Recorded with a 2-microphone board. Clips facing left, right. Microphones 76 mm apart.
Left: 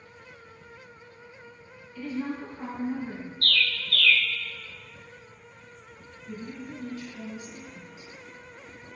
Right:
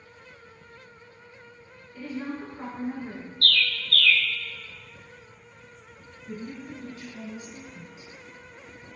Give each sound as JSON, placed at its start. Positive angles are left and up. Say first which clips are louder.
{"t": 1.9, "sound": "a woman speaking", "louder": "left 2 dB", "side_deg": -45, "distance_m": 1.6}
{"t": 3.4, "sound": "a bird", "louder": "right 1 dB", "side_deg": -55, "distance_m": 0.6}
{"t": 6.3, "sound": "a woman speaking", "louder": "right 1 dB", "side_deg": -40, "distance_m": 1.8}